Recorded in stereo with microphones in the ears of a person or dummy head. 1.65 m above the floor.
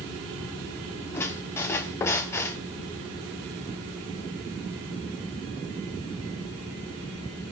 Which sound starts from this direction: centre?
A squeak, at 1.1 s.